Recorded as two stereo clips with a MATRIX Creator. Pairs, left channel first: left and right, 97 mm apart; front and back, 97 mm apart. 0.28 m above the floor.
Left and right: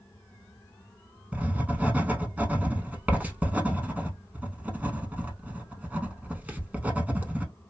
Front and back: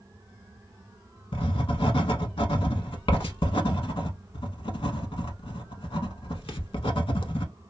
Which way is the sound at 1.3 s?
15° right.